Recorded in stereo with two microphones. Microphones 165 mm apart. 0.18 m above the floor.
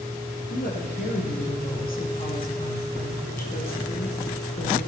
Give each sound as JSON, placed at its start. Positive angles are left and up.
{"t": 0.5, "sound": "a woman speaking", "side_deg": 60, "distance_m": 4.5}